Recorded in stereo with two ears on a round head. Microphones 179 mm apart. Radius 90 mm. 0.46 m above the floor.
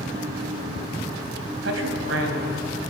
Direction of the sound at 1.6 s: 65° right (ahead or behind).